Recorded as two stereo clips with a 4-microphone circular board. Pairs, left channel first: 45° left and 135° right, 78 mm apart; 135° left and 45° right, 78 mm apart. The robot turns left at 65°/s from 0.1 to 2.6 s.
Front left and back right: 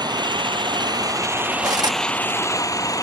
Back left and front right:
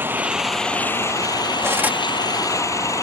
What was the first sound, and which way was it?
An engine running, 110° right.